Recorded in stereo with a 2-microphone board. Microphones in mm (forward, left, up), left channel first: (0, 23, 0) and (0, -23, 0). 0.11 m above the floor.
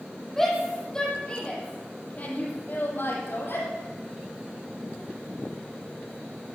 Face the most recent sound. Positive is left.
turn(degrees=65)  # may be behind; listen again after turning